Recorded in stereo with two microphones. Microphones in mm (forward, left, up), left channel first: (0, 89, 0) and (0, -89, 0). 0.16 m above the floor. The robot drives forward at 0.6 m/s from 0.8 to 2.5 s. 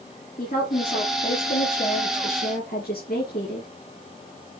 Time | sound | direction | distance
0.4 | a woman speaking | 50° left (ahead or behind) | 4 m